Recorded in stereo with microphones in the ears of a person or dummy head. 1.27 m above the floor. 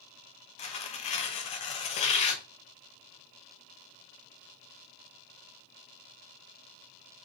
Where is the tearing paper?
40° left (ahead or behind), 0.6 m.